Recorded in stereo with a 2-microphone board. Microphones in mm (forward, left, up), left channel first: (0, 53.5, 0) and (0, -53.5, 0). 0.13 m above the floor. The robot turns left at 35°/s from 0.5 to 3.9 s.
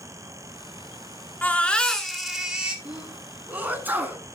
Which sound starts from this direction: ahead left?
A baby crying, at 1.4 s.